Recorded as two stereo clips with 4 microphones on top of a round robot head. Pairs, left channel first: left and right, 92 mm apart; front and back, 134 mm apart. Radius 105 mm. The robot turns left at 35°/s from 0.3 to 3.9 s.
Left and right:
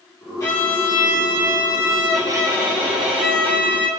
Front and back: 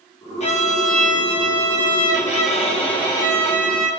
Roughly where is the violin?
Ahead left.